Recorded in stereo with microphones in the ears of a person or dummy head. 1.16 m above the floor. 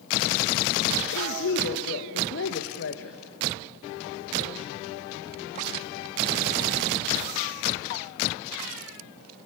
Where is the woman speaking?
65° left (ahead or behind), 1.4 m.